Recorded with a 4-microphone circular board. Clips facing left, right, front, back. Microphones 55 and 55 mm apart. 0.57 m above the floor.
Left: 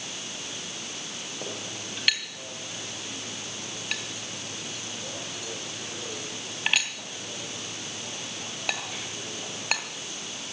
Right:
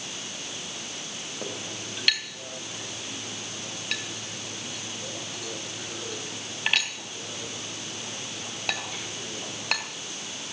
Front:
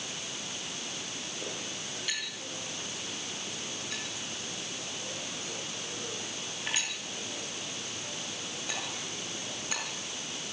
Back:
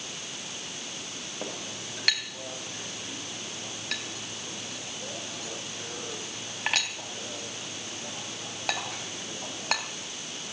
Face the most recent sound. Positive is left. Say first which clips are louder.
# right 2 dB, back 4 dB
turn(degrees=175)